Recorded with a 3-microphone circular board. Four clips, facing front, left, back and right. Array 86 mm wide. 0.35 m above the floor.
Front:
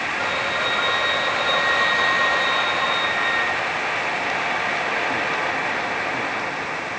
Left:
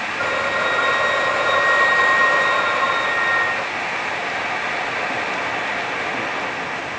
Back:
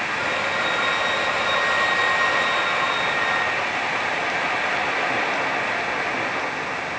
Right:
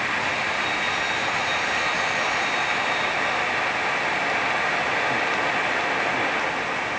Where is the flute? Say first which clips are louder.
Left 5 dB, even; 85° left.